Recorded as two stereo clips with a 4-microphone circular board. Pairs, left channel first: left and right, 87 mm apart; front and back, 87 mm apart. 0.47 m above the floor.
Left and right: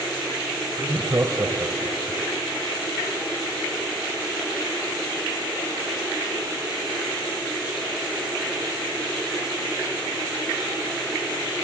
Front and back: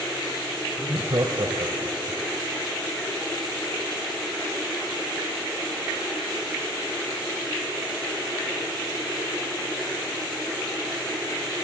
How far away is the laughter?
About 2 m.